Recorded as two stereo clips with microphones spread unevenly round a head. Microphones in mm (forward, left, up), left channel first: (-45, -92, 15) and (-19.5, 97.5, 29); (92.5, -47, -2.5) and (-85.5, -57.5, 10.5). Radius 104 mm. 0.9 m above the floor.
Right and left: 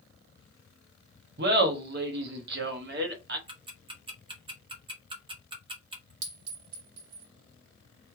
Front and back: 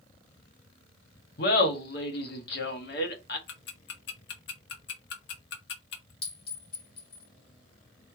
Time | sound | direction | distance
1.4 | laughter | 40° left | 1.0 m
3.5 | ticking | 15° left | 0.9 m
6.2 | a clink | 70° left | 2.5 m